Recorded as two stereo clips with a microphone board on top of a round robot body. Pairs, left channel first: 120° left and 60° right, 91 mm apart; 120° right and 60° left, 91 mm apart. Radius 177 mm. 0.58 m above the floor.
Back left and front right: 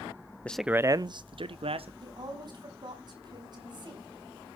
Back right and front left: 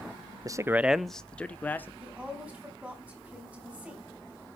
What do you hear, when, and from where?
0.5 s a man speaking: 55° left, 0.6 m; by 1.9 s 50° right, 1.3 m
2.0 s a woman speaking: 15° right, 4.5 m